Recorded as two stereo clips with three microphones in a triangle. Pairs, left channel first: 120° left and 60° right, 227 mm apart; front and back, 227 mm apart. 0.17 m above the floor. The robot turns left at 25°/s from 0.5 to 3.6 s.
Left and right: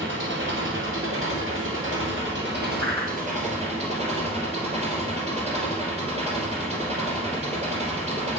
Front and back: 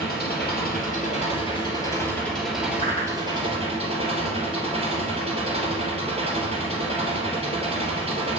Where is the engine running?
40° right, 2.5 m; by 8.4 s 120° right, 2.5 m.